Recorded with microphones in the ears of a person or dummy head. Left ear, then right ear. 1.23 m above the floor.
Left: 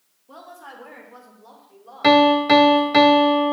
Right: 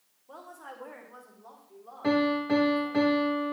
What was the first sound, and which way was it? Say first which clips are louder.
A woman speaking: left 4 dB; 35° right (ahead or behind).